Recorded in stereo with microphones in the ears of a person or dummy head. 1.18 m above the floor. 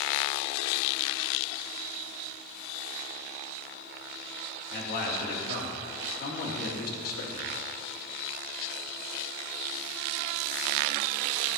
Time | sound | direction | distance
4.7 | a man speaking | 65° left (ahead or behind) | 1.8 m